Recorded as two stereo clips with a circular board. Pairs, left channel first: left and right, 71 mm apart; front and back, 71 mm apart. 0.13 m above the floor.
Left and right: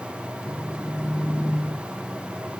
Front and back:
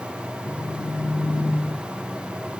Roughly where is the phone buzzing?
Ahead.